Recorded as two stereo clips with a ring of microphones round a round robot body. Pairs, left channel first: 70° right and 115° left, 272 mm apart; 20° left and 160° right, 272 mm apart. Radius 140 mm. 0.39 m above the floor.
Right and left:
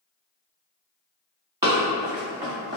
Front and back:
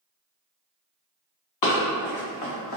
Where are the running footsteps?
35° left, 1.7 m.